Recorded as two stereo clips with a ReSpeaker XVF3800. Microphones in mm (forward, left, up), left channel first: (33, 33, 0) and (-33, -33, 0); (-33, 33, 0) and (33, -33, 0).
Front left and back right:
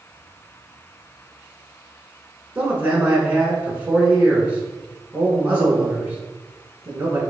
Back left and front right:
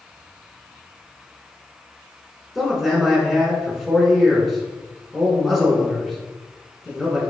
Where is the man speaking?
135° right, 1.2 m.